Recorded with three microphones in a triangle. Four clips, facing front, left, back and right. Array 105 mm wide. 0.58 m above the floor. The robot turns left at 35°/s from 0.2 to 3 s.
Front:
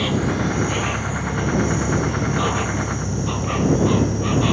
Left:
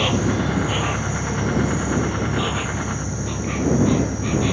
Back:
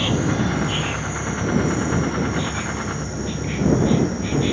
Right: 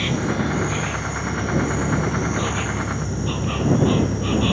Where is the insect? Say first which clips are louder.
Left 2 dB, even; 85° left; by 4.5 s 15° right.